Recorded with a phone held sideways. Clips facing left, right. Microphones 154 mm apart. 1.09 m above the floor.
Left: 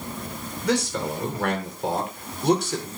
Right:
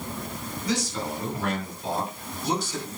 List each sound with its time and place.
0.6 s a man speaking: 80° left, 4.5 m; by 2.9 s 70° left (ahead or behind), 4 m